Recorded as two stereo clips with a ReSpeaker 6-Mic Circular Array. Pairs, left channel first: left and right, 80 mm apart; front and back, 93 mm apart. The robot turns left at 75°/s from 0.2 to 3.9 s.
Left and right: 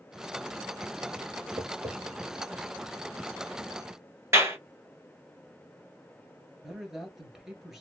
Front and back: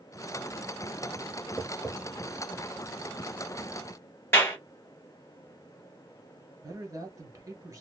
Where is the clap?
55° right, 1.2 m.